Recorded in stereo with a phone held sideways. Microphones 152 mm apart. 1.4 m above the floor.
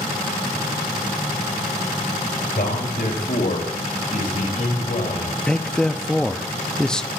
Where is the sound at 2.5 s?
85° left, 3.5 m; by 5.4 s 60° left (ahead or behind), 3 m.